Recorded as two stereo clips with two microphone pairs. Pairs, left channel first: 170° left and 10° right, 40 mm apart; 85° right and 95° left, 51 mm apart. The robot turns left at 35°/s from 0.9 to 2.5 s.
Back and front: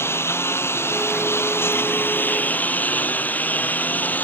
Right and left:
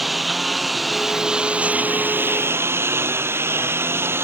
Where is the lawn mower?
Straight behind; by 4.2 s 130° left.